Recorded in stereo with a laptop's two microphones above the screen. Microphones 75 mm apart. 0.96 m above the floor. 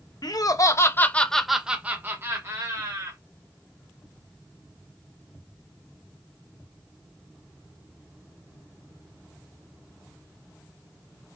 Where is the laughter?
60° left (ahead or behind), 0.7 m; by 3.2 s 45° right (ahead or behind), 1.3 m.